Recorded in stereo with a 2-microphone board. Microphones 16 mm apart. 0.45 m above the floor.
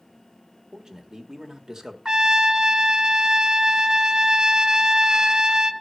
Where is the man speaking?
45° right (ahead or behind), 1.7 m.